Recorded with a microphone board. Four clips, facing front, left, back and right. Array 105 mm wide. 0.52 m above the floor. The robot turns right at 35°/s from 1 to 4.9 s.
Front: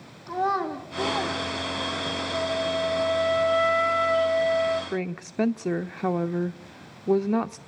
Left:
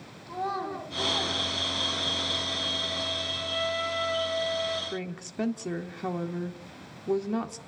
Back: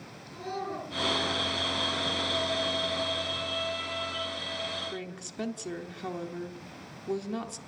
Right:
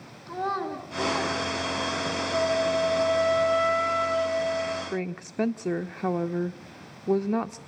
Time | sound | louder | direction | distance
0.3 | a child speaking | right 2 dB, front 10 dB | 10° right | 3.5 m
2.3 | a flute | right 12 dB, front 8 dB | 70° right | 1.6 m
4.9 | a woman speaking | right 4 dB, front 10 dB | 25° right | 1.1 m